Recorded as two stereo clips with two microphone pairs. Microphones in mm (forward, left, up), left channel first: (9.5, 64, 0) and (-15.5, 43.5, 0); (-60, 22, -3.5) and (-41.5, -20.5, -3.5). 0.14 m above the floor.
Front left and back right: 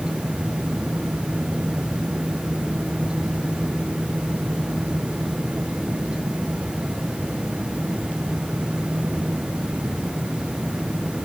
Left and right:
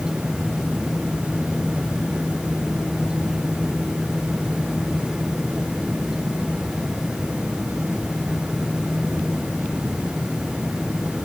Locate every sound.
Only background noise.